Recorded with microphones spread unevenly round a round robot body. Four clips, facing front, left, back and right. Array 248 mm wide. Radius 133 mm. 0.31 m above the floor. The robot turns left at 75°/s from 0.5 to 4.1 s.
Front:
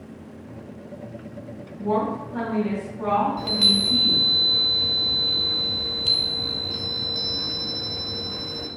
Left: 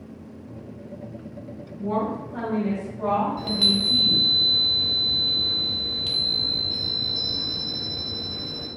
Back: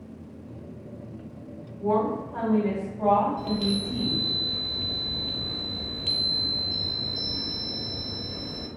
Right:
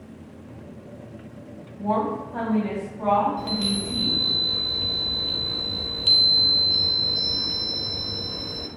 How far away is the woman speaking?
About 2 m.